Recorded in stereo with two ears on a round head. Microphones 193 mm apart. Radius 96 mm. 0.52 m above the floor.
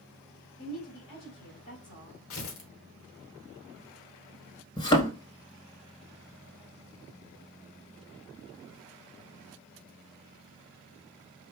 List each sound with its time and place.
0.6 s a woman speaking: 60° left (ahead or behind), 2 m
2.3 s tearing paper: 65° left (ahead or behind), 0.9 m
4.8 s a thud: 20° left (ahead or behind), 0.8 m